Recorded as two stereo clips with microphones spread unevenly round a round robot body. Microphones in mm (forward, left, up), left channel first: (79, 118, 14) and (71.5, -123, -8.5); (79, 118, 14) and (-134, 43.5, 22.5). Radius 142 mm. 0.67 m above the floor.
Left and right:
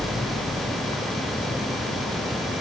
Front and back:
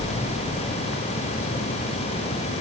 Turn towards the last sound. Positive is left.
No sound to turn to.